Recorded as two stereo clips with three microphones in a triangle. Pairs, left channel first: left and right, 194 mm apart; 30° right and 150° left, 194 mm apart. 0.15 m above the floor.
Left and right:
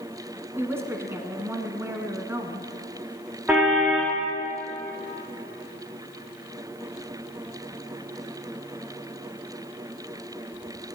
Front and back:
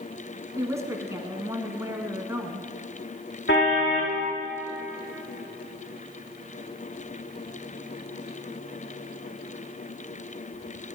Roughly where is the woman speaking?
Behind right.